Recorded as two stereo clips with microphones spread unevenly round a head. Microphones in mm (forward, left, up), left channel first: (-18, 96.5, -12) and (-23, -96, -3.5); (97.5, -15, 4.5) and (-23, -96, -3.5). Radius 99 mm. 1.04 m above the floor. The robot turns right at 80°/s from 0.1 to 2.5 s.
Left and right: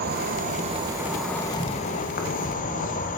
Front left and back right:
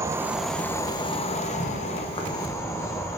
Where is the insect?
85° right, 0.8 m; by 3.2 s 105° left, 0.8 m.